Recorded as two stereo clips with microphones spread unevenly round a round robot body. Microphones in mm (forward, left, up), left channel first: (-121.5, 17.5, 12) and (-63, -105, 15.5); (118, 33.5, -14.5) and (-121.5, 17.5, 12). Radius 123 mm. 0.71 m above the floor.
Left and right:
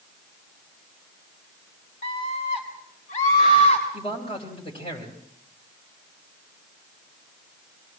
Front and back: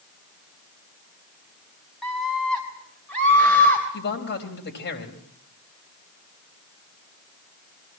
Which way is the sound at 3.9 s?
50° left.